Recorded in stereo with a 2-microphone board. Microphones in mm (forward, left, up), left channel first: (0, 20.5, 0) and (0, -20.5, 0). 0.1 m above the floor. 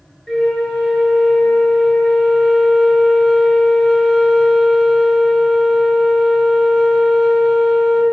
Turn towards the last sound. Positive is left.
turn(degrees=15)  # may be behind; listen again after turning